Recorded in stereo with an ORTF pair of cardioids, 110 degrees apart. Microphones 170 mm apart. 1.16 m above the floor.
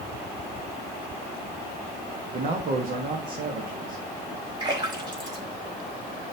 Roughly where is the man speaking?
Ahead right.